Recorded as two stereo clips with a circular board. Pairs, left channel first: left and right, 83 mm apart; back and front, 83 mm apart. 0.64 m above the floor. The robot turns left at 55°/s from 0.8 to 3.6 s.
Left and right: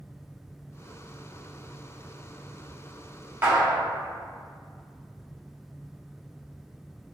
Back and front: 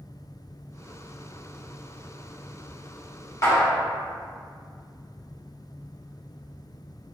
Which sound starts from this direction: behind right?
A clap, at 3.4 s.